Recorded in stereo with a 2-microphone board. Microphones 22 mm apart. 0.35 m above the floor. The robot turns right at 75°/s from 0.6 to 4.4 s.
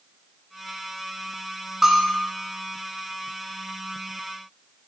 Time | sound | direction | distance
1.8 | a bell | 20° right | 0.6 m